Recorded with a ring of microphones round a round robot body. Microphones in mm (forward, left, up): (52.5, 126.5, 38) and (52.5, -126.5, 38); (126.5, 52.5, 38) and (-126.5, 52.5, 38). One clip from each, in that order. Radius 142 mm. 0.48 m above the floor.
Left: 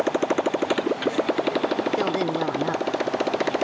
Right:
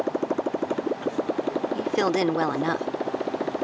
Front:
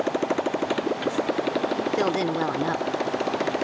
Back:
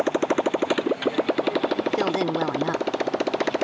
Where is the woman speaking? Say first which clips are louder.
Even, even; 80° right.